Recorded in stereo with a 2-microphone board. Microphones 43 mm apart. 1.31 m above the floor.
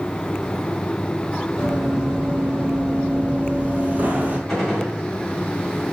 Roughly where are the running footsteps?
Centre.